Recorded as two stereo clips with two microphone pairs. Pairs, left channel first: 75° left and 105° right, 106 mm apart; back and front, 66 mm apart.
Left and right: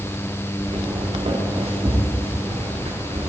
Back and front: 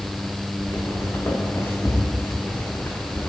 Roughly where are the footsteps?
Behind right.